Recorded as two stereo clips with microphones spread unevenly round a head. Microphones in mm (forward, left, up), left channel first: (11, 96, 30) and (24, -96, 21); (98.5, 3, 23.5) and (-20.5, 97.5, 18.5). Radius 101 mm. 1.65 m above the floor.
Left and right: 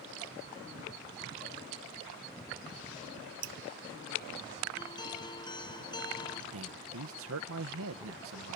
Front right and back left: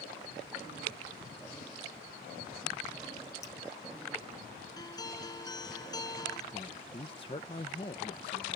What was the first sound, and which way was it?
Dripping, 115° right.